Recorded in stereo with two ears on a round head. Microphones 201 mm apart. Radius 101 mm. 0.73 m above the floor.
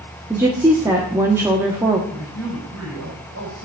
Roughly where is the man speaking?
Right.